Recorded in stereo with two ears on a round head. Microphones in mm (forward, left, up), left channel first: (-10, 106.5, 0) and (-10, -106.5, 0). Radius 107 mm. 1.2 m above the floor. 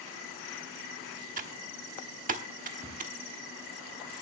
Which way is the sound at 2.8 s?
15° right (ahead or behind).